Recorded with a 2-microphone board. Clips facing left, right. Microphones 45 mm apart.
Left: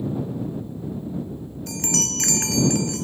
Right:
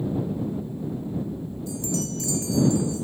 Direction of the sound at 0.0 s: 25° right (ahead or behind).